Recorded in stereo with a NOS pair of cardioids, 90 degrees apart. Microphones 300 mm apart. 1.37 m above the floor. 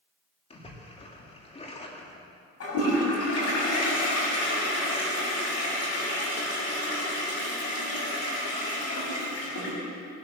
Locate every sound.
0.5 s a splash: 20° left, 2.5 m
2.6 s a toilet flushing: 50° left, 7 m